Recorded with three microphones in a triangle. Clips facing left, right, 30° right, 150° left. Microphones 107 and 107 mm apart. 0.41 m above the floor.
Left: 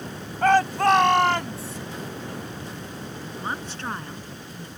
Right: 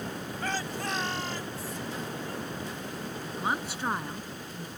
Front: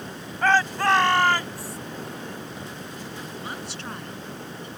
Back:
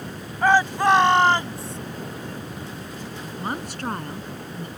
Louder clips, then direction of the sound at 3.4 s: Right 1 dB, back 5 dB; 170° right.